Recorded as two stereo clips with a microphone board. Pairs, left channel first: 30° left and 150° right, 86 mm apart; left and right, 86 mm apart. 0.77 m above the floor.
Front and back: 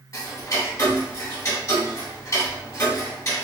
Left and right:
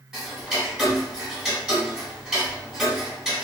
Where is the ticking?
5° right, 1.2 m.